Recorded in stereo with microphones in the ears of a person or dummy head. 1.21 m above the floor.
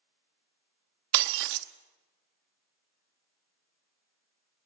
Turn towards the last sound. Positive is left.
turn(degrees=-50)  # may be behind; listen again after turning